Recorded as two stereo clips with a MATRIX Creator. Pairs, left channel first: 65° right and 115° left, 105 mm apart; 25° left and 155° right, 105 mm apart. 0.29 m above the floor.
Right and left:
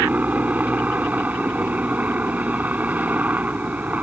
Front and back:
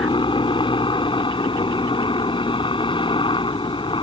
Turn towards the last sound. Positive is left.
turn(degrees=40)